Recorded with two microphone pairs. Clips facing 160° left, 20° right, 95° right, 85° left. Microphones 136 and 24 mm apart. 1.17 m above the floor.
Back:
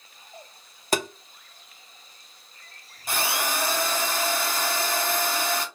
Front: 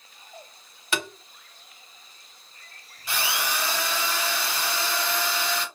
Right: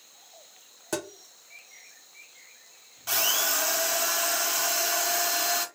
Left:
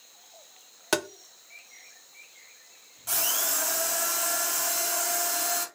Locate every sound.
0.9 s tapping: 115° left, 0.7 m
3.1 s a drill: 160° right, 1.3 m